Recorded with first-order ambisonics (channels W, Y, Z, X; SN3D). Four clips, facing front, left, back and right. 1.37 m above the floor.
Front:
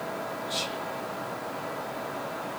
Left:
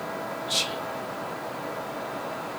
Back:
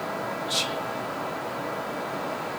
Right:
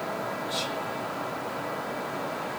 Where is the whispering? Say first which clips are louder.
Left 6 dB, back 5 dB; 120° left, 0.8 m.